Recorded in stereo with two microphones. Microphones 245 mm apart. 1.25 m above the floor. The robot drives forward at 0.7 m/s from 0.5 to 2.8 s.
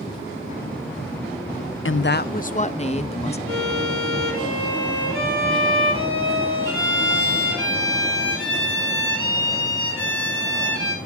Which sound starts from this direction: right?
A violin, at 3.5 s.